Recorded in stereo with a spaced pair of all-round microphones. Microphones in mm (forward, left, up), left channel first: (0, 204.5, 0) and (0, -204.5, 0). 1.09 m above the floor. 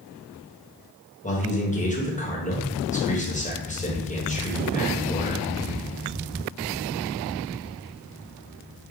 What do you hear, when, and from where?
1.2 s a man speaking: 20° left (ahead or behind), 1.1 m